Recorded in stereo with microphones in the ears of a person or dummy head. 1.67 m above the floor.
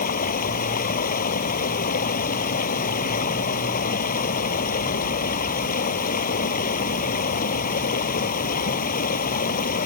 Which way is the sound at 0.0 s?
45° left (ahead or behind).